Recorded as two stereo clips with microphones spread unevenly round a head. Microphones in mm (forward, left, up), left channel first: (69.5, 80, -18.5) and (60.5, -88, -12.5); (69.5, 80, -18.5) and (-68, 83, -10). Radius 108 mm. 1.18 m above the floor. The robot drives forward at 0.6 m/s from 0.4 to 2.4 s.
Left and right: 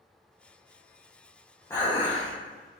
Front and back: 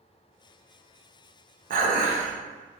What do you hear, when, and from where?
1.7 s dishes clattering: 165° left, 0.7 m; by 2.3 s 170° left, 1.1 m